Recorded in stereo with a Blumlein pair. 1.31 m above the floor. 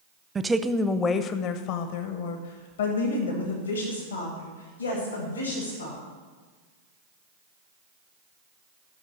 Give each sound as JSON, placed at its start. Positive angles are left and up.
{"t": 0.3, "sound": "a woman speaking", "azimuth_deg": -15, "distance_m": 0.7}